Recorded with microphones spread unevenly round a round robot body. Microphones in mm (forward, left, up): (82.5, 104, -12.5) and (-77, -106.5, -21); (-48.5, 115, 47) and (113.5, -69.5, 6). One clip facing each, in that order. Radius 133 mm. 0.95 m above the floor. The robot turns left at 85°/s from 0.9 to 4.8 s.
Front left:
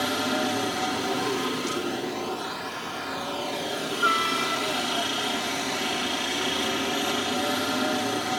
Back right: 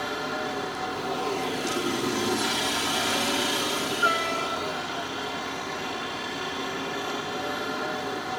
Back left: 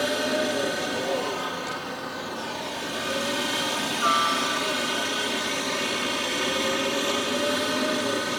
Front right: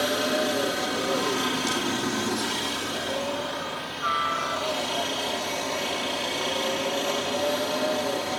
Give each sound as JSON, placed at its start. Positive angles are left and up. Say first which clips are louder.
{"t": 0.0, "sound": "a helicopter", "louder": "front left 5 dB, even", "azimuth_deg": 40}